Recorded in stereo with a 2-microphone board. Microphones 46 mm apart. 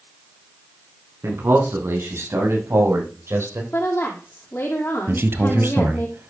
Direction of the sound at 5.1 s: 55° right (ahead or behind).